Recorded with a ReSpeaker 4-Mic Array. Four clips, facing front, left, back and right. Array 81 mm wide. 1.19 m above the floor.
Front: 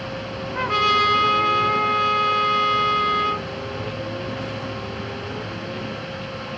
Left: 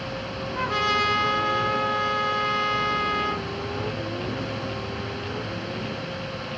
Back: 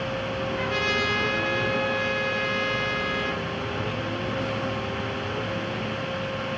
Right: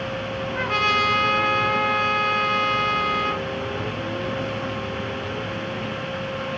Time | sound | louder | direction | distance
0.6 | a trumpet | right 2 dB, front 10 dB | 35° right | 1.6 m